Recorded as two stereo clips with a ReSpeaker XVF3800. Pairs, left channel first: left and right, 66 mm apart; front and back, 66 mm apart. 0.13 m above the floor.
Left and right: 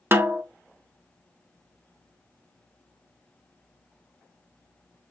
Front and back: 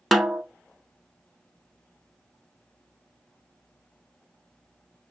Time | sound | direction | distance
0.1 | a snare drum | 85° right | 0.6 m